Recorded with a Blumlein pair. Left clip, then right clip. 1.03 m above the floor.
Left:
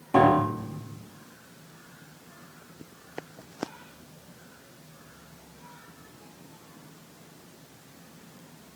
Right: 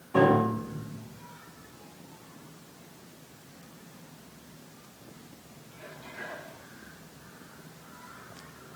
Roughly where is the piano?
Ahead left.